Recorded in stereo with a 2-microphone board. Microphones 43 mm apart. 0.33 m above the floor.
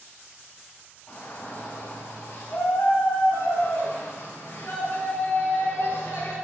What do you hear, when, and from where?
1.1 s a shout: 45° left (ahead or behind), 1.7 m; by 6.3 s 50° left (ahead or behind), 4.5 m